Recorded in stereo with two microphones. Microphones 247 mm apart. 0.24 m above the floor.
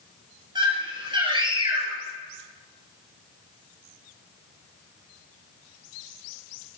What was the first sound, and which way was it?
A scream, 20° right (ahead or behind).